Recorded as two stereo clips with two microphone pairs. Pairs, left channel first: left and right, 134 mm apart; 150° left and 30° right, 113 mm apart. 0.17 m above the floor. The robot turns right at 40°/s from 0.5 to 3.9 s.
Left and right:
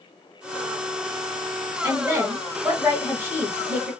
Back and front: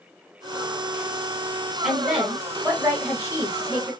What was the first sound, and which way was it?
A woman speaking, 110° right.